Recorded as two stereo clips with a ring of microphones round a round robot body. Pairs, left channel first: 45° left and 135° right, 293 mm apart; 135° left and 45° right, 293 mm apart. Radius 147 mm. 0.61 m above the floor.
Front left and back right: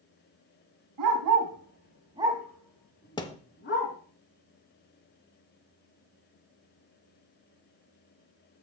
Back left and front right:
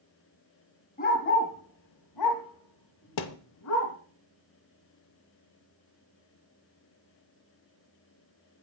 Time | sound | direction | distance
1.0 | a dog barking | 160° right | 2 m
3.2 | a thud | 120° left | 0.7 m